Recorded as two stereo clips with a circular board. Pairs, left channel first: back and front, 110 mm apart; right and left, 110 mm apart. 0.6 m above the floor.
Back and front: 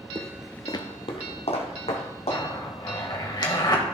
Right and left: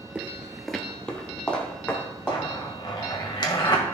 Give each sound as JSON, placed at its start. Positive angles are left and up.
{"t": 0.1, "sound": "footsteps", "azimuth_deg": 20, "distance_m": 0.7}
{"t": 2.3, "sound": "a zipper", "azimuth_deg": -135, "distance_m": 1.6}